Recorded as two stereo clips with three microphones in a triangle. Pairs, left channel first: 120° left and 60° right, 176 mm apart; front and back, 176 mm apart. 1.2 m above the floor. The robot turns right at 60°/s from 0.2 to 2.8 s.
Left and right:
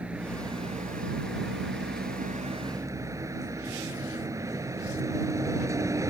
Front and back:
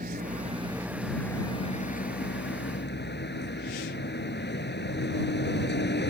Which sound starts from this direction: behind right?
A vehicle, at 0.0 s.